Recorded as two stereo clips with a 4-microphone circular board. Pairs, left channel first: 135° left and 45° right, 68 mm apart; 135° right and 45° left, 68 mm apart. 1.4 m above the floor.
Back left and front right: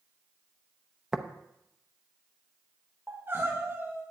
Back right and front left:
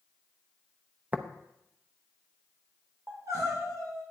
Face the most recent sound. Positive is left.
turn(degrees=10)